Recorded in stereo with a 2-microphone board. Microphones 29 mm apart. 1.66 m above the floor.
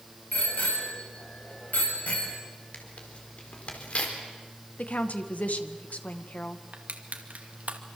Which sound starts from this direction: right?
Crushing, at 6.7 s.